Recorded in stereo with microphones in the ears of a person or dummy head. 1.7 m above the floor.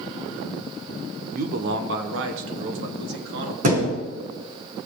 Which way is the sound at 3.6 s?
45° right (ahead or behind).